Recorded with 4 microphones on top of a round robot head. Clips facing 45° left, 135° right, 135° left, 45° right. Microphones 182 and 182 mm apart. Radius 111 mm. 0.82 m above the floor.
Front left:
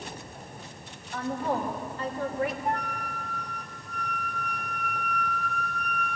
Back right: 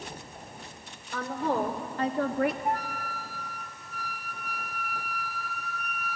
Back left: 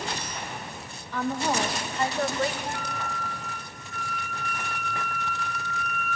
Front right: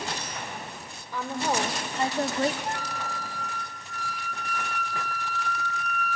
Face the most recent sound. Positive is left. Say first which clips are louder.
# even, even
turn(degrees=-55)